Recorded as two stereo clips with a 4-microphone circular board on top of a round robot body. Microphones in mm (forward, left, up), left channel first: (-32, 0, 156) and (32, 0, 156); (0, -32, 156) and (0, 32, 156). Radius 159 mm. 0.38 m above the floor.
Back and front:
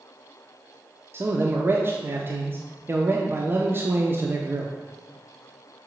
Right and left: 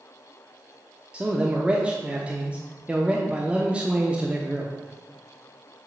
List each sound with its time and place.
1.1 s a man speaking: 25° left, 1.1 m